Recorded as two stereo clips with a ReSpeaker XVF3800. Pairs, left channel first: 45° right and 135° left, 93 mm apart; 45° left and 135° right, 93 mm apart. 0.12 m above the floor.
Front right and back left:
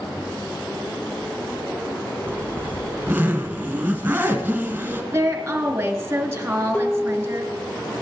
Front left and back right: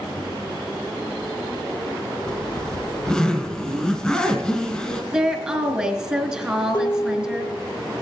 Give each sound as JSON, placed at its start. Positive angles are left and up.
{"t": 2.3, "sound": "a zipper", "azimuth_deg": 115, "distance_m": 1.6}
{"t": 5.1, "sound": "a woman speaking", "azimuth_deg": 160, "distance_m": 1.4}
{"t": 6.7, "sound": "dishes clattering", "azimuth_deg": 20, "distance_m": 2.0}